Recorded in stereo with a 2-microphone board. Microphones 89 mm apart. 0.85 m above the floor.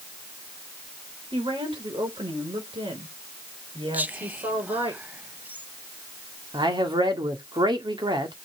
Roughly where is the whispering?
Centre.